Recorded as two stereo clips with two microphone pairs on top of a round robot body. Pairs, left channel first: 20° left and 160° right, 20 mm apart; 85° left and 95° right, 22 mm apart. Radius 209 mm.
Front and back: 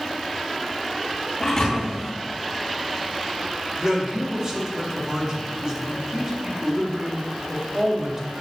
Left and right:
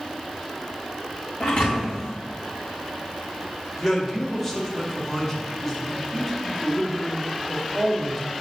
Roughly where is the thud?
Left.